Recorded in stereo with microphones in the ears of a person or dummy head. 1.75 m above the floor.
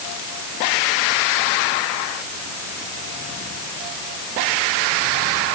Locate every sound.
Only background noise.